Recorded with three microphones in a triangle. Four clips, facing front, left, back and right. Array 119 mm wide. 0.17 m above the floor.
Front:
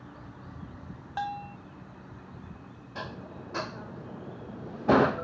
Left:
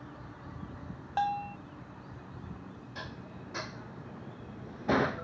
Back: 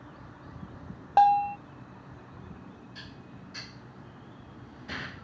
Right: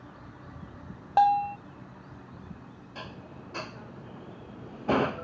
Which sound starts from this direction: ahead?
Dishes clattering, at 3.0 s.